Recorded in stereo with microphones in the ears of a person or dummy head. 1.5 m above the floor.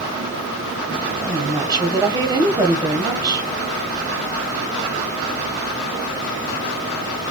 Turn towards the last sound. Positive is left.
turn(degrees=-20)  # may be behind; listen again after turning